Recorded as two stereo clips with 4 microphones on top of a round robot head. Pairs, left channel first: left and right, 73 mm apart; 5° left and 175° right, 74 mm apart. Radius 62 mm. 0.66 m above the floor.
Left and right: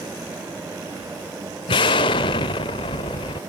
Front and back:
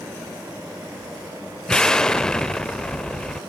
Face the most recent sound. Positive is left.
turn(degrees=85)